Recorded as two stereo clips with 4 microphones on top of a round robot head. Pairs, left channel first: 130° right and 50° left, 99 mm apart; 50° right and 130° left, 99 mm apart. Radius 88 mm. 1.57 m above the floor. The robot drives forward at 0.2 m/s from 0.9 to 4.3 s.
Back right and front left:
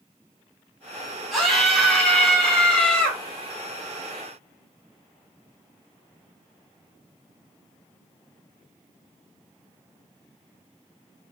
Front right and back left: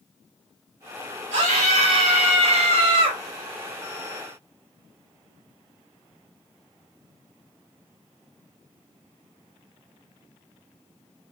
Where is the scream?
140° left, 1.1 m; by 3.2 s 150° left, 1.4 m.